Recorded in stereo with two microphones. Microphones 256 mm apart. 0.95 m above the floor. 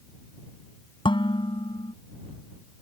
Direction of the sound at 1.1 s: 20° left (ahead or behind).